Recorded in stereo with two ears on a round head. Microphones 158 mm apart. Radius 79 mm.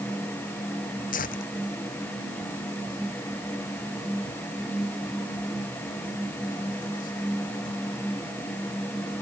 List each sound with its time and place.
1.1 s tearing paper: 50° left (ahead or behind)